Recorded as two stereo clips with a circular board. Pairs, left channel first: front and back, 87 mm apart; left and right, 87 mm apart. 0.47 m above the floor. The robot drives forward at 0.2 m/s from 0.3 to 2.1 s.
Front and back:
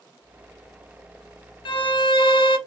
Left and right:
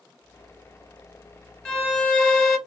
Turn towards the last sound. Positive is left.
turn(degrees=5)